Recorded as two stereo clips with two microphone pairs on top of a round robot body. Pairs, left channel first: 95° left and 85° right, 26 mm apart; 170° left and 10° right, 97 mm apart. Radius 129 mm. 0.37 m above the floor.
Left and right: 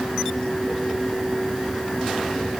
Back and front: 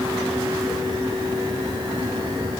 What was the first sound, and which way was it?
Only background noise.